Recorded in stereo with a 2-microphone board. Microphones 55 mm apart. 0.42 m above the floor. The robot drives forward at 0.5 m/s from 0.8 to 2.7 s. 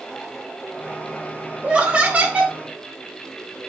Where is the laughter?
20° right (ahead or behind), 1.2 m; by 2.5 s 25° right (ahead or behind), 1.0 m.